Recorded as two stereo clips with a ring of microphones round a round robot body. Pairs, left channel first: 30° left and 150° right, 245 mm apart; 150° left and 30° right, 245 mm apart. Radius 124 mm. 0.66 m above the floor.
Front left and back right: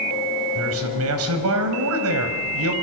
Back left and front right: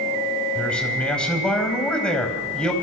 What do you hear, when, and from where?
0.6 s a man speaking: 125° right, 4.5 m